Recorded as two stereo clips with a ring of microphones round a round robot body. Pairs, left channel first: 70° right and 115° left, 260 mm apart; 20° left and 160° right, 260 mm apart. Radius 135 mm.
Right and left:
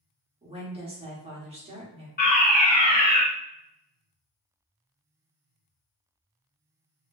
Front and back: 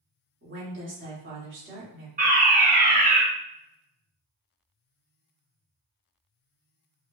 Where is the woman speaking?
175° left, 1.5 m.